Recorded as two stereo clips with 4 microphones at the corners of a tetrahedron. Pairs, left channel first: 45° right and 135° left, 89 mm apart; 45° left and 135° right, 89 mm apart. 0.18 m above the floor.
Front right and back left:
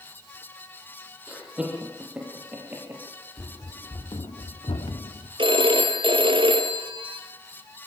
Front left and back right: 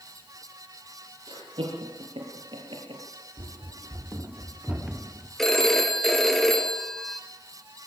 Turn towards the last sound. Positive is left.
turn(degrees=130)